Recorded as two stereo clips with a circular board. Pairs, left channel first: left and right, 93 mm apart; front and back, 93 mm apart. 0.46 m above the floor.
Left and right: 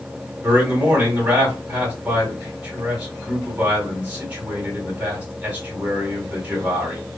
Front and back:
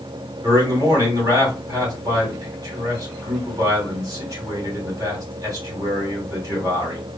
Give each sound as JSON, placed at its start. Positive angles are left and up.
{"t": 0.4, "sound": "a man speaking", "azimuth_deg": -155, "distance_m": 1.8}